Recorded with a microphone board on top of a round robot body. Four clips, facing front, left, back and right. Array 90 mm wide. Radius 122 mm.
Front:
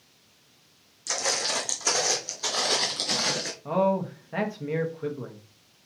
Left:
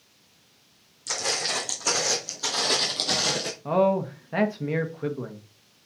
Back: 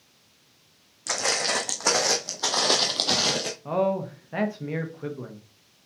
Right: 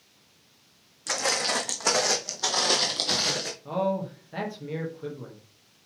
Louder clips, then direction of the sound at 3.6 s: Left 6 dB, front 1 dB; 95° left.